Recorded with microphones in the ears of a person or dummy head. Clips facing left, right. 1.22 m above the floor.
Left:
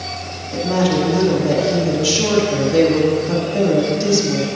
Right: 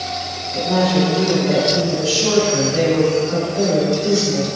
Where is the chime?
I don't hear a chime.